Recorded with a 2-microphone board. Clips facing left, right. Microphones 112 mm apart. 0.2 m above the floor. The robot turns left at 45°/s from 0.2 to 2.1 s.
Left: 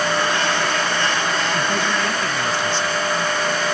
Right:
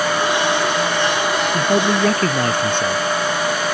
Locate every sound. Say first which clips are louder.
1.5 s a man speaking: right 5 dB; 25° right (ahead or behind); by 3.0 s 50° right (ahead or behind)